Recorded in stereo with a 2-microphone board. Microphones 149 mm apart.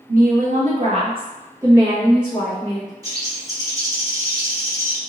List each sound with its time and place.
0.1 s a woman speaking: 70° right (ahead or behind), 0.9 m; by 2.9 s centre (ahead or behind), 1.6 m
3.0 s a bird: 25° right (ahead or behind), 0.6 m